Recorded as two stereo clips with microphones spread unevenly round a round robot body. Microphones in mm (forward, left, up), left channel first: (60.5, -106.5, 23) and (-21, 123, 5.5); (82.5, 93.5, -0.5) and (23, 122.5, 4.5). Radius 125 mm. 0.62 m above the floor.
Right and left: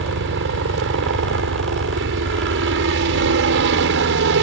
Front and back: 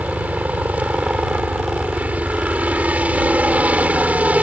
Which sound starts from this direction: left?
A helicopter, at 0.0 s.